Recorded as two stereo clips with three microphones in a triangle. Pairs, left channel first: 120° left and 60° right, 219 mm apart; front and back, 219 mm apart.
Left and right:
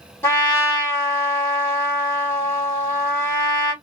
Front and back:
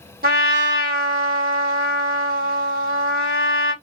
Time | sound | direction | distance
0.2 | a trumpet | 165° right | 1.6 m